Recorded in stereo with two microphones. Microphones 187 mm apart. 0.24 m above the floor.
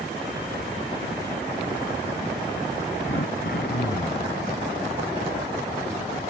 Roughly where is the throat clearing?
Left.